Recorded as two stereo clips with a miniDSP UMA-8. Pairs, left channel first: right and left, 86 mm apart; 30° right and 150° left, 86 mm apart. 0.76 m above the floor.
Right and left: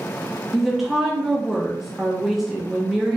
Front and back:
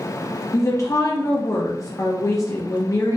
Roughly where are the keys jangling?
No keys jangling in this recording.